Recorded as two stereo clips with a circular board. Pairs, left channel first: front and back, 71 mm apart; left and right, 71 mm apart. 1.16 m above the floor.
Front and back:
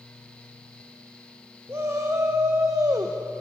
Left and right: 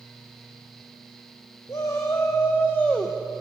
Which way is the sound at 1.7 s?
130° left.